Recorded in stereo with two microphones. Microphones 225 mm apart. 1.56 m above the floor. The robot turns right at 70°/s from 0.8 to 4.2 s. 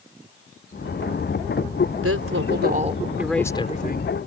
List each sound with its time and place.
2.0 s a woman speaking: 90° right; by 4.2 s 60° left